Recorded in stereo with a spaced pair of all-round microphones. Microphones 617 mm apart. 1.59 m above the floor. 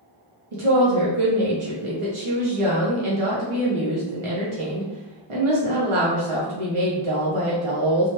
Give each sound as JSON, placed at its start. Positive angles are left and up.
{"t": 0.5, "sound": "a woman speaking", "side_deg": -60, "distance_m": 0.7}